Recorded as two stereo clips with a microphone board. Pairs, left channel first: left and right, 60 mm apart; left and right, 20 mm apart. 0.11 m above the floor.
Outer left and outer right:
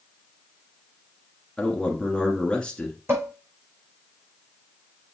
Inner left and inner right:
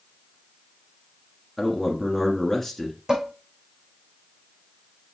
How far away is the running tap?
I don't hear a running tap.